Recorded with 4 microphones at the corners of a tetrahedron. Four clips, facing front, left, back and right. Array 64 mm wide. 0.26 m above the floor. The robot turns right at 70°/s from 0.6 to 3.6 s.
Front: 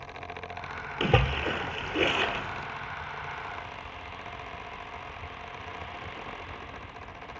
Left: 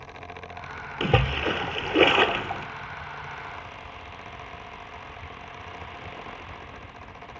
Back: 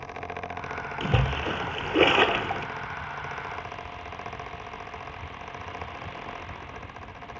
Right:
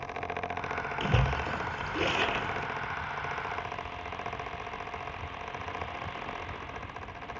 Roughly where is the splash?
Ahead left.